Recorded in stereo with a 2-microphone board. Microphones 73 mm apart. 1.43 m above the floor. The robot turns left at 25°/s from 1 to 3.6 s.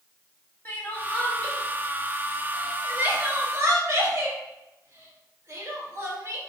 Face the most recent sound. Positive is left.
turn(degrees=-35)  # may be behind; listen again after turning